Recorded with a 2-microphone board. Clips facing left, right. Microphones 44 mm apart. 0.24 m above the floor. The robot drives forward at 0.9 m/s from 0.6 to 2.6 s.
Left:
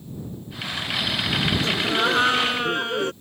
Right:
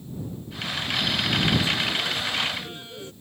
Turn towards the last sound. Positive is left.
turn(degrees=65)  # may be behind; listen again after turning